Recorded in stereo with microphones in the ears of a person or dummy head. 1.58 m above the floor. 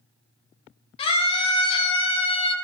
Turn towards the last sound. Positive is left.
turn(degrees=30)  # may be behind; listen again after turning